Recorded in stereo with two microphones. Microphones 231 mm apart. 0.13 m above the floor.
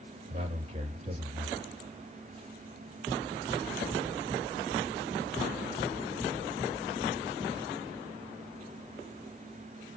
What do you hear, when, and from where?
0.3 s a man speaking: 25° right (ahead or behind), 3.5 m